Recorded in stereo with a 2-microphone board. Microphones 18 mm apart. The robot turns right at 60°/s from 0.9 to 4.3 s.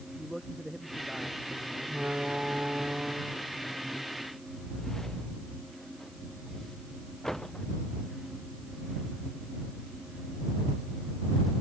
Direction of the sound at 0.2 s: 160° right.